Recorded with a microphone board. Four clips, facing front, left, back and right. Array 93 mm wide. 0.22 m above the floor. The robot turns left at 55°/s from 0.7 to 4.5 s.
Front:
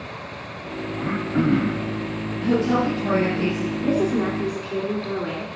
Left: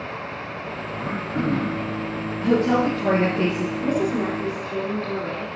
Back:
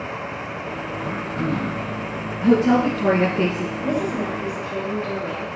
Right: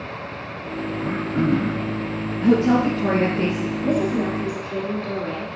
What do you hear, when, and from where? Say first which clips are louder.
1.0 s throat clearing: right 3 dB, front 6 dB; 25° left, 1.2 m; by 1.9 s 30° right, 1.2 m
2.4 s a woman speaking: right 2 dB, back 4 dB; 155° right, 2.5 m; by 3.7 s 135° left, 2.5 m
3.8 s a woman speaking: right 2 dB, front 3 dB; 25° left, 2.5 m; by 5.6 s 10° right, 2.5 m